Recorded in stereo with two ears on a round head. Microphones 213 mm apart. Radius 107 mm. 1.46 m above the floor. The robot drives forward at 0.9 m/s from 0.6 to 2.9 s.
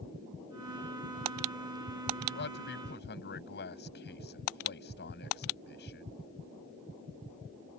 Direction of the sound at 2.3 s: 50° left (ahead or behind).